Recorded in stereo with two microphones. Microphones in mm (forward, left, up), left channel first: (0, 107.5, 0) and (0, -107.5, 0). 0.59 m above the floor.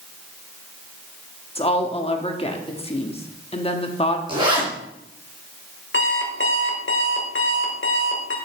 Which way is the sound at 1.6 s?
30° left (ahead or behind).